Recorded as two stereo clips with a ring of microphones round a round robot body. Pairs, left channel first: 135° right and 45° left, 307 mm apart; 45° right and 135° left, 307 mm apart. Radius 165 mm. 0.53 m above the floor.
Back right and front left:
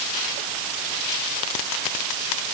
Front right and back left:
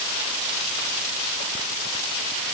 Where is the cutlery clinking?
No cutlery clinking in this recording.